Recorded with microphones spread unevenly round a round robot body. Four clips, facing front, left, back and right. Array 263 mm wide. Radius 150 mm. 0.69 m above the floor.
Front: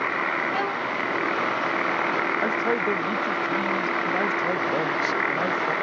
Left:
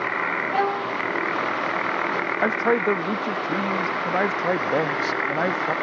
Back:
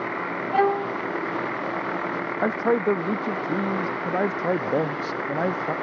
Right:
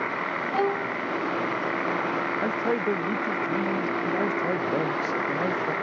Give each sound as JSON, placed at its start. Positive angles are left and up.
{"t": 0.5, "sound": "a violin", "azimuth_deg": -160}
{"t": 2.4, "sound": "a man speaking", "azimuth_deg": 145}